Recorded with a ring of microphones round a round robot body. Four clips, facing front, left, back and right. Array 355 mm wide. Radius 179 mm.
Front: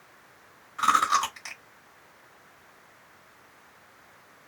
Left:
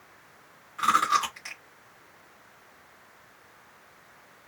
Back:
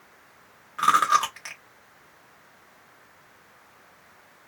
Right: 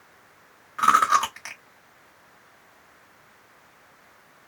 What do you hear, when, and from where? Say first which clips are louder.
0.8 s chewing: right 5 dB, back 3 dB; 120° right, 1.2 m